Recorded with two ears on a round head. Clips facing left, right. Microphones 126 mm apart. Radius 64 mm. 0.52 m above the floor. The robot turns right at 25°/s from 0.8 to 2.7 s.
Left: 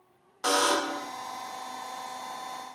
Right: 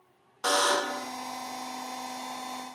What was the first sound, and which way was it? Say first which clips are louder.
A buzzer: left 1 dB; 5° left (ahead or behind).